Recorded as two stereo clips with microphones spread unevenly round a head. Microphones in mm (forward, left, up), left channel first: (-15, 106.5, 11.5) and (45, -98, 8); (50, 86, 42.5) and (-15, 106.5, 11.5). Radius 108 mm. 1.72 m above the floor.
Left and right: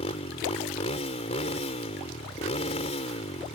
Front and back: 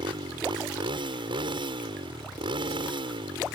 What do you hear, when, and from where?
0.0 s a motorcycle: 170° left